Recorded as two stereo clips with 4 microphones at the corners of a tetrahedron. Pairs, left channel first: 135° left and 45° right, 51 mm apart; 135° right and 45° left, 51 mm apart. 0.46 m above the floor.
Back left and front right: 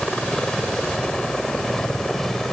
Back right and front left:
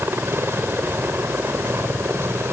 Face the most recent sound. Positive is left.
turn(degrees=55)